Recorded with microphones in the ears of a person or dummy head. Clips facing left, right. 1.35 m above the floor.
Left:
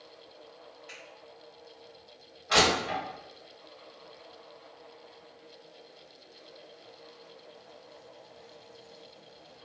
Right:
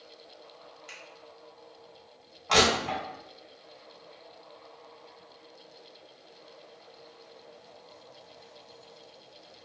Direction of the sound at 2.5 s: 55° right (ahead or behind).